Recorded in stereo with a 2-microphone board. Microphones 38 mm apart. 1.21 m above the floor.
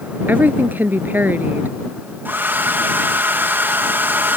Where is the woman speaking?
60° right (ahead or behind).